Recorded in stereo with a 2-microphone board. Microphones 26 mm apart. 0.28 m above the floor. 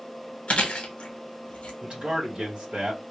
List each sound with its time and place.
0.5 s chewing: 50° left (ahead or behind), 1.0 m
1.8 s a man speaking: 40° right (ahead or behind), 2 m